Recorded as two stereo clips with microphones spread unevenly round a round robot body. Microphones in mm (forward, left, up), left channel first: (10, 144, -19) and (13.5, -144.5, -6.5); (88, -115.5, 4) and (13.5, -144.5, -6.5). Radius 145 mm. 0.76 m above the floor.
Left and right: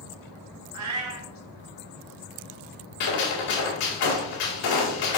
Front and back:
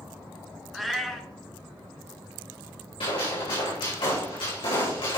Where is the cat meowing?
65° right, 1.7 m.